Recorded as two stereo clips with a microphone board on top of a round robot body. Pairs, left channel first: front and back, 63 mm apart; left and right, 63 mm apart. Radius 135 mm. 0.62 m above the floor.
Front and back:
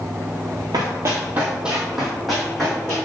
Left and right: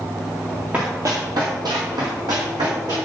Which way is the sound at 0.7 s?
155° right.